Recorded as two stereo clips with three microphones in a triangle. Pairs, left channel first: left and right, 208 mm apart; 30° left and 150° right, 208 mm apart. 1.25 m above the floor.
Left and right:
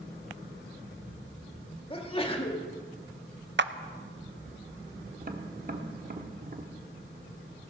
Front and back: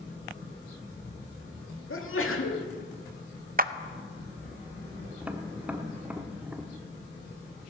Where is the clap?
105° right, 0.6 m.